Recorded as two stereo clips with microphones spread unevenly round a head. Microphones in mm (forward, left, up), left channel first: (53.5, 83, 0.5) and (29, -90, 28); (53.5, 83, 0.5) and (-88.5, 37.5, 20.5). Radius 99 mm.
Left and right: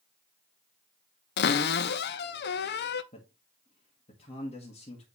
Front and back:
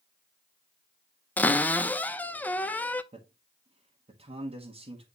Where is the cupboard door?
95° left, 0.6 m.